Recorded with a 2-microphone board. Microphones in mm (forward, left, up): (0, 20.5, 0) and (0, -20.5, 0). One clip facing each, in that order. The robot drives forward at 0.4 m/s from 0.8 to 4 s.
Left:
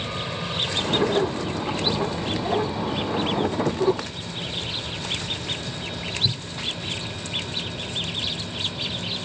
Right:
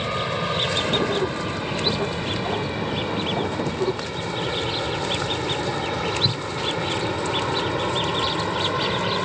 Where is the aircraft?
25° right (ahead or behind); by 9.2 s 70° right (ahead or behind).